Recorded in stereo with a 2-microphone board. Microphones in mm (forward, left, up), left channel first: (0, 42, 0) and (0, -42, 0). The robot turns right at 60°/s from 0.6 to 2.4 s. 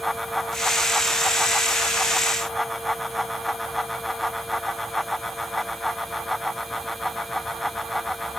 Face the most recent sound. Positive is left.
No sound to turn to.